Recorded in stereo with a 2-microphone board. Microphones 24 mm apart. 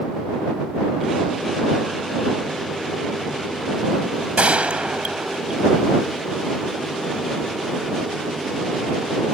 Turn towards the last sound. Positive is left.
turn(degrees=-80)